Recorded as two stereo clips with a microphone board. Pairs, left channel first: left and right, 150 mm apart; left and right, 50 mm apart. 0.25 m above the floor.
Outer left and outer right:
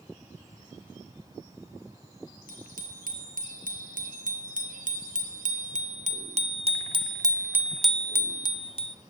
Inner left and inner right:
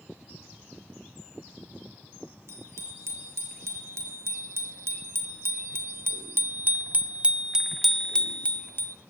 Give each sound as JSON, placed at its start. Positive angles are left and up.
{"t": 2.5, "sound": "a bicycle bell", "side_deg": -75, "distance_m": 4.0}